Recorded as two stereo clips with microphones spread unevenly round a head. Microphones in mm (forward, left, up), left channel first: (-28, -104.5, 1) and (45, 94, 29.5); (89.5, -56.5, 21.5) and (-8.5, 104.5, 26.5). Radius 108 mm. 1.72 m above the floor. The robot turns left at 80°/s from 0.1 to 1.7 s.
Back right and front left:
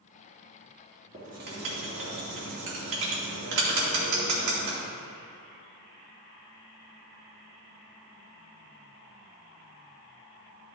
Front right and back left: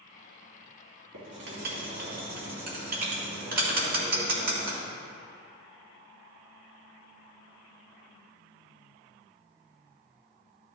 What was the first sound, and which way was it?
Writing, 130° left.